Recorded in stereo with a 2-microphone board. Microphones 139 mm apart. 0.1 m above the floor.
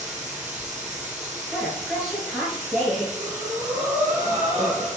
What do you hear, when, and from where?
0.0 s running water: 60° right (ahead or behind), 1.7 m
1.5 s a woman speaking: centre (ahead or behind), 1.6 m
3.1 s breathing: 25° left (ahead or behind), 1.8 m